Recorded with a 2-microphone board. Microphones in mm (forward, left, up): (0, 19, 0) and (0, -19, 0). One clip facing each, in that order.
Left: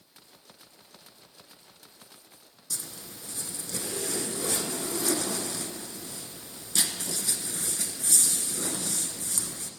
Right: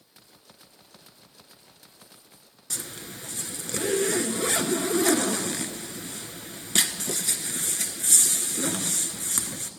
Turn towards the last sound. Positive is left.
turn(degrees=-70)  # may be behind; listen again after turning